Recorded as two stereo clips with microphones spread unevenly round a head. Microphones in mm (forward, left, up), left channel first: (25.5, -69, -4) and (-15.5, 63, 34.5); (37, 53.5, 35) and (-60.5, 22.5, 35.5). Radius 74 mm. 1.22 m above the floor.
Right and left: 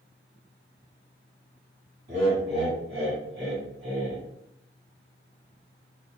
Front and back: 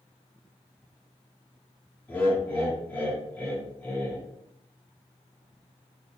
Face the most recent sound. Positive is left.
turn(degrees=95)